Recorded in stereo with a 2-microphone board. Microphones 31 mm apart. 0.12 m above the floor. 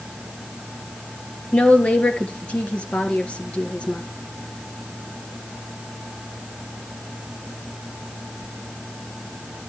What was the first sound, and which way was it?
A woman speaking, 40° left (ahead or behind).